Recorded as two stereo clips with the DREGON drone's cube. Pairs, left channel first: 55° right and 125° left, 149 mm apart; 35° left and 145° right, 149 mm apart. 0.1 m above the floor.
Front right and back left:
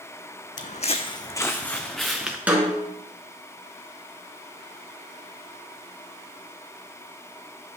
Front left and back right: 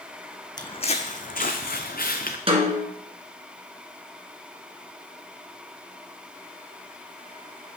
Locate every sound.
0.6 s footsteps: 30° right, 0.6 m; by 2.4 s 40° left, 1.1 m
2.5 s a snare drum: 160° right, 1.6 m